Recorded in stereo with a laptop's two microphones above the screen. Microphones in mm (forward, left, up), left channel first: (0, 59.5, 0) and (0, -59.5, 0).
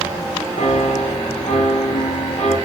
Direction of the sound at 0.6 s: 85° left.